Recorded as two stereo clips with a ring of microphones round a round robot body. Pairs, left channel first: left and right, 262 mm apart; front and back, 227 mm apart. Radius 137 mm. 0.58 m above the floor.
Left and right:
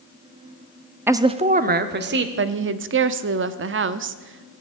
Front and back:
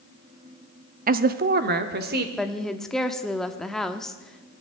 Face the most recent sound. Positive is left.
turn(degrees=-90)